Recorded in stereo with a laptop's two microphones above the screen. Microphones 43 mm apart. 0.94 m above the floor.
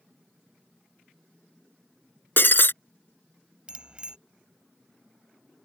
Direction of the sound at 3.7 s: 25° right (ahead or behind).